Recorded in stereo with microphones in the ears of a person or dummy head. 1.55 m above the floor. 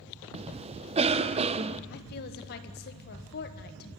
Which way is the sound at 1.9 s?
55° left (ahead or behind).